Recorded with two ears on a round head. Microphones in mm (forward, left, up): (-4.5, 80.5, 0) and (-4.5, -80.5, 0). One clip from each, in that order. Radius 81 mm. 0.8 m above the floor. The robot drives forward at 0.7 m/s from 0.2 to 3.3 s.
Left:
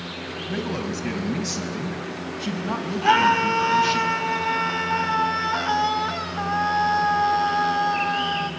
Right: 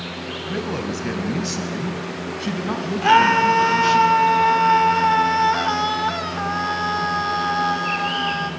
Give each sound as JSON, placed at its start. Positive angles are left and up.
{"t": 0.5, "sound": "a man speaking", "side_deg": 0, "distance_m": 4.0}
{"t": 3.0, "sound": "a scream", "side_deg": -10, "distance_m": 2.5}